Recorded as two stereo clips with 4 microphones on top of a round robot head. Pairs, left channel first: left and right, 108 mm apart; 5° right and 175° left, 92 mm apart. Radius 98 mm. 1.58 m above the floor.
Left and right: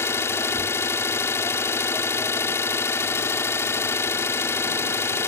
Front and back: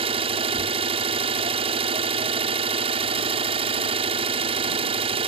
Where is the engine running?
160° left.